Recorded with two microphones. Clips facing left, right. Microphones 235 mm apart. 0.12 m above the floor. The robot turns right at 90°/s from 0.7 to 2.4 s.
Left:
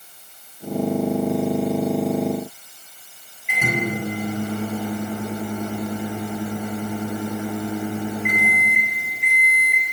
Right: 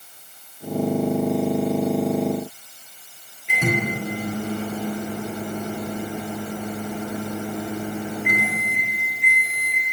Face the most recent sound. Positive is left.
turn(degrees=-20)  # may be behind; listen again after turning